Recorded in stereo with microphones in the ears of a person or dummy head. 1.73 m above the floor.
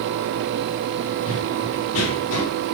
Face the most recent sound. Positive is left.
turn(degrees=60)  # may be behind; listen again after turning